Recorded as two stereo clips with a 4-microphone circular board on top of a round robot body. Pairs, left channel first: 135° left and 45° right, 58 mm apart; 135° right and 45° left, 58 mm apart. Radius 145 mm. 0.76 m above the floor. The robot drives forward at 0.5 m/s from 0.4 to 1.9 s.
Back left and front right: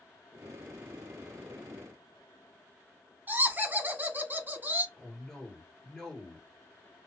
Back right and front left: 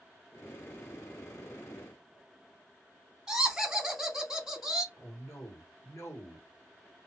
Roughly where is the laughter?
Ahead right.